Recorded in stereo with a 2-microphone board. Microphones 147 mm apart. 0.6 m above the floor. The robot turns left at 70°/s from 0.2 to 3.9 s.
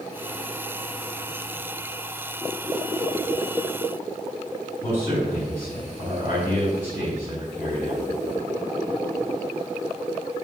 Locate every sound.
4.8 s a man speaking: 25° right (ahead or behind), 4.5 m